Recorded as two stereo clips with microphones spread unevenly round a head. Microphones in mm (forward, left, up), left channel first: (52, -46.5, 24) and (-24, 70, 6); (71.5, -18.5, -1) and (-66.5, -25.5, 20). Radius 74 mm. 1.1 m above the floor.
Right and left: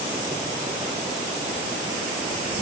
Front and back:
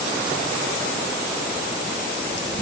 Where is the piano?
I don't hear a piano.